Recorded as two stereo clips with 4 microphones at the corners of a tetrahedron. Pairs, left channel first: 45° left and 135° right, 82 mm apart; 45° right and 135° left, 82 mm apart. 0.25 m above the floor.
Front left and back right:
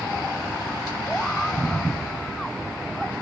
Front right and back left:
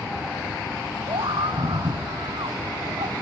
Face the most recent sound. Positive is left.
turn(degrees=130)